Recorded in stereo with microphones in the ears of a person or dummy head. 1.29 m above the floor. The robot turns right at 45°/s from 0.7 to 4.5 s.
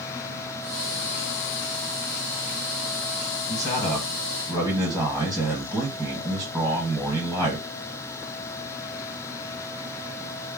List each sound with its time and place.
3.5 s a man speaking: 140° left, 1.2 m; by 7.7 s 175° right, 1.2 m